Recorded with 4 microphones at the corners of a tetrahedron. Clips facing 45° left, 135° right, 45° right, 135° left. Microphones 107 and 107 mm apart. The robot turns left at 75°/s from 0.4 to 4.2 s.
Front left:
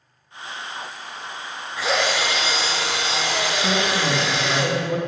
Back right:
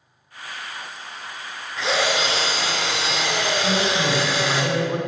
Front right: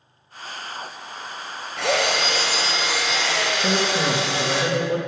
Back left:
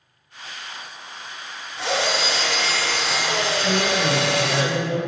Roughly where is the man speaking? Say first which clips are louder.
Even, front right 1 dB; ahead right.